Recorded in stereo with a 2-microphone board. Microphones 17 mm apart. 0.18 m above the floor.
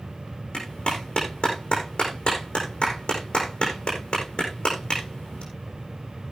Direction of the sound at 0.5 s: 75° left (ahead or behind).